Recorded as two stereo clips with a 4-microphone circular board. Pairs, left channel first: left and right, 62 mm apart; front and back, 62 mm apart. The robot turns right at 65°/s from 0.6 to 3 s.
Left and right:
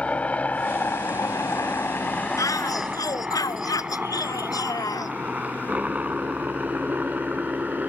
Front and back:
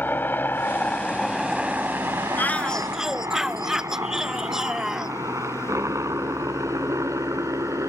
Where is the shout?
55° left; by 5.1 s 100° left.